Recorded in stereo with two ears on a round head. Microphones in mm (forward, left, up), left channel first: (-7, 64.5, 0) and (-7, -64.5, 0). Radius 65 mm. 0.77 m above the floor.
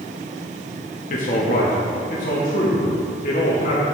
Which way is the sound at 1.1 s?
55° left (ahead or behind).